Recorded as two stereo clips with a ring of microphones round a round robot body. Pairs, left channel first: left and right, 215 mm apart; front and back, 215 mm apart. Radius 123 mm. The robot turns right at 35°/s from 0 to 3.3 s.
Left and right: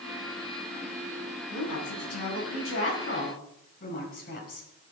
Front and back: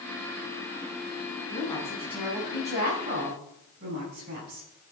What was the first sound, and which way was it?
A woman speaking, 75° left.